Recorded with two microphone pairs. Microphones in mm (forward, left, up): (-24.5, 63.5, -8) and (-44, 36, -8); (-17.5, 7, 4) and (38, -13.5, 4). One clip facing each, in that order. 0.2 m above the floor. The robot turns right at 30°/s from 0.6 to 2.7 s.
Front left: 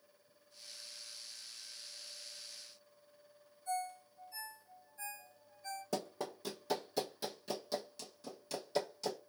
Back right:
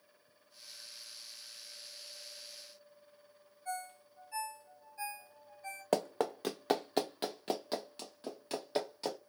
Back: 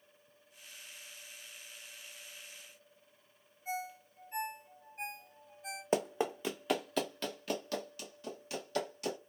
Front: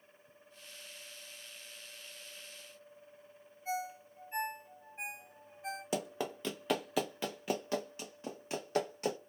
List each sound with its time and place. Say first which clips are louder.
3.6 s a ringtone: front left 2 dB, front 2 dB; 85° right, 2 m
5.9 s running footsteps: back right 9 dB, back 6 dB; 145° right, 0.7 m; by 9.2 s 75° right, 2 m